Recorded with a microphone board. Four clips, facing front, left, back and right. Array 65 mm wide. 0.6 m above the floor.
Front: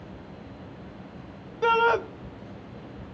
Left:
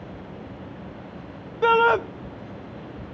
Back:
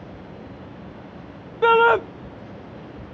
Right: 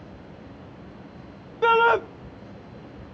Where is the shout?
Straight behind, 0.6 m.